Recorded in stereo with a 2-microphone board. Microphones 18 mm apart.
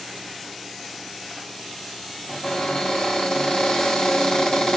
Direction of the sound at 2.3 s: 50° left (ahead or behind).